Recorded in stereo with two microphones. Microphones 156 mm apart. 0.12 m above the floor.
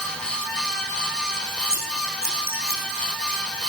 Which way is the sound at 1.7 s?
70° right (ahead or behind).